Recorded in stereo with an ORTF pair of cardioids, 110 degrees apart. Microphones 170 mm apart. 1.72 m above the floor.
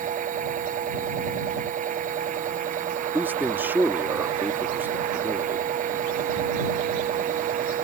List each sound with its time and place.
0.0 s a machine running: 50° right
3.1 s a man speaking: 10° right